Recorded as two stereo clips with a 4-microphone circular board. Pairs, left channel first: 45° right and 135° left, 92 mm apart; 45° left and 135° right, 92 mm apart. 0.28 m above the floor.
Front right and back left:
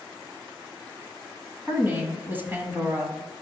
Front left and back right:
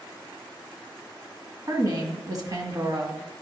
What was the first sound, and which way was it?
A woman speaking, 165° right.